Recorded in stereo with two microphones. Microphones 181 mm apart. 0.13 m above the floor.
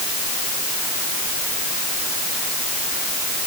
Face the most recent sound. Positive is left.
No sound to turn to.